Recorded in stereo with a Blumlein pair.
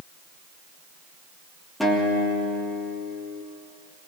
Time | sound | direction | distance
1.8 | a guitar | 5° left | 3 m